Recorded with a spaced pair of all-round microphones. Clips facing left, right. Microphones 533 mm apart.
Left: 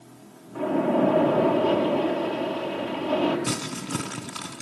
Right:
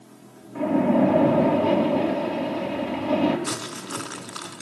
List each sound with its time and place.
0.6 s a splash: 45° right (ahead or behind), 5 m
3.5 s crumpling: 45° left (ahead or behind), 3 m